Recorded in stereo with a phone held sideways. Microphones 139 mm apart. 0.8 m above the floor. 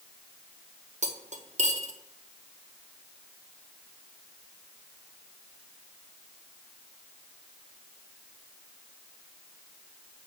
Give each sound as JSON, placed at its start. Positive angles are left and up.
{"t": 1.0, "sound": "cutlery clinking", "side_deg": -60, "distance_m": 0.7}